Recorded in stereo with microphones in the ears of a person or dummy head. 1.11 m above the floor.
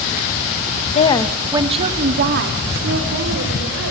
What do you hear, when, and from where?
0.9 s a woman speaking: 40° left (ahead or behind), 1.0 m; by 3.9 s 65° right (ahead or behind), 4.5 m